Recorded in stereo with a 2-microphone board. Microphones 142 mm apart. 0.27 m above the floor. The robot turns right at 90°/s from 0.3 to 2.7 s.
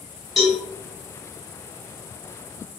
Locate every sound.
0.4 s a cowbell: centre (ahead or behind), 1.5 m; by 0.6 s 15° left (ahead or behind), 1.5 m